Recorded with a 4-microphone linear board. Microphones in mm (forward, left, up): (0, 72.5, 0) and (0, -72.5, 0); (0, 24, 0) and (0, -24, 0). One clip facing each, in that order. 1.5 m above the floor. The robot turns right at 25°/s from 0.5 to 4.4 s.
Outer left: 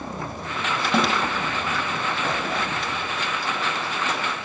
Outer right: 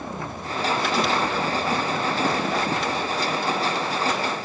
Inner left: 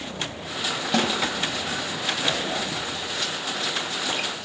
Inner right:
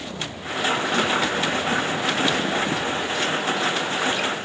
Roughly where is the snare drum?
Left.